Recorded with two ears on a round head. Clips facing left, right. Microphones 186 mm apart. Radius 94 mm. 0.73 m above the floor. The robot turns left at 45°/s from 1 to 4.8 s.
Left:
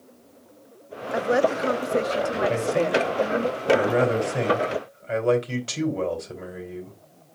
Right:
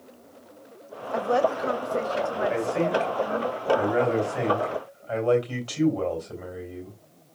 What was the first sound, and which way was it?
A woman speaking, 160° left.